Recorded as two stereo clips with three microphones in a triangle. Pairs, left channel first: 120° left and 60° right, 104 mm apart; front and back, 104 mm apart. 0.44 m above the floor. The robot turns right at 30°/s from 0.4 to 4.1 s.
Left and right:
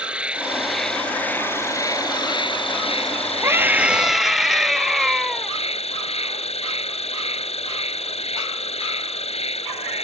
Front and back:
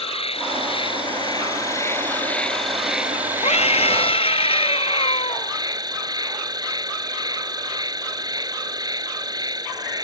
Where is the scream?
5° left; by 5.5 s 25° left.